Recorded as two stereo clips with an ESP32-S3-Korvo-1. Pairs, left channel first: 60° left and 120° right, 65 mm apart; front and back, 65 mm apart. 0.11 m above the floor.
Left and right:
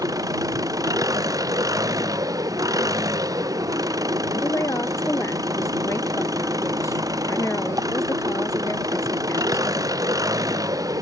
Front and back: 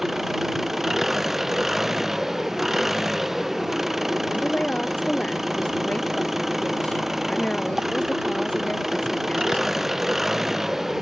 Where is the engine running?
95° right.